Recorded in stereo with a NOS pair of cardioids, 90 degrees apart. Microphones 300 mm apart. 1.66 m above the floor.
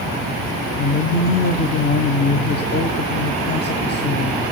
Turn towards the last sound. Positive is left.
turn(degrees=35)